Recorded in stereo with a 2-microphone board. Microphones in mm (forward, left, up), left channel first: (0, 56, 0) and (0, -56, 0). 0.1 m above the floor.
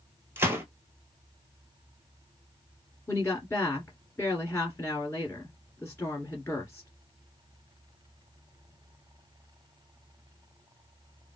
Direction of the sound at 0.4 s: 20° right (ahead or behind).